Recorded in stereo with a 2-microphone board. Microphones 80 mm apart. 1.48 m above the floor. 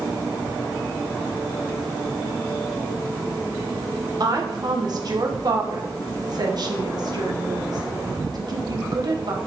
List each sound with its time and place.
4.2 s a woman speaking: 50° right (ahead or behind), 1.2 m